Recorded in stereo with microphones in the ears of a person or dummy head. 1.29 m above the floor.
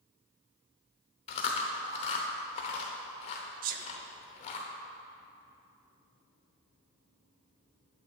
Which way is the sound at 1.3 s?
40° left (ahead or behind).